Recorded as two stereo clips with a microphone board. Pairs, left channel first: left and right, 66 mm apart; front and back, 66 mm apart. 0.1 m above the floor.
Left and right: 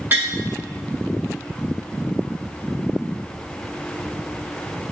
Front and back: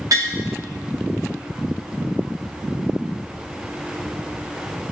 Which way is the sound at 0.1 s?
150° right.